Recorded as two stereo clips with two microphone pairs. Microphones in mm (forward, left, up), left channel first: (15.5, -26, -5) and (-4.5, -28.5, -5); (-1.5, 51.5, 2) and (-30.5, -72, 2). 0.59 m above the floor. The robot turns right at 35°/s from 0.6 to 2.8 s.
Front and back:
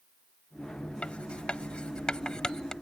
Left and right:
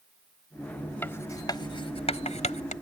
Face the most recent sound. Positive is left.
turn(degrees=65)